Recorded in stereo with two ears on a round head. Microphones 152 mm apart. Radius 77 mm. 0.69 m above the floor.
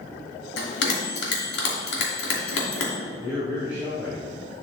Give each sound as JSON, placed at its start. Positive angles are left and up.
{"t": 0.6, "sound": "a bell", "side_deg": 70, "distance_m": 2.5}
{"t": 3.2, "sound": "a man speaking", "side_deg": -15, "distance_m": 3.0}